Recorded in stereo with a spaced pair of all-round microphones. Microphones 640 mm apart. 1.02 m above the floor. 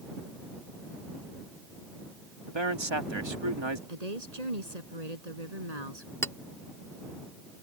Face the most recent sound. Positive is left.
turn(degrees=5)  # may be behind; listen again after turning